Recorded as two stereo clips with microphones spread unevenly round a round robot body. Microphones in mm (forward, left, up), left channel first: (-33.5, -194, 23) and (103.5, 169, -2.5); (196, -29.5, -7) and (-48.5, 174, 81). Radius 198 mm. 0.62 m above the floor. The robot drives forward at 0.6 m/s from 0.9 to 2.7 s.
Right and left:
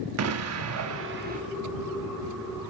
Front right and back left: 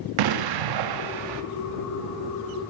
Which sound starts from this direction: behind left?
An explosion, at 0.2 s.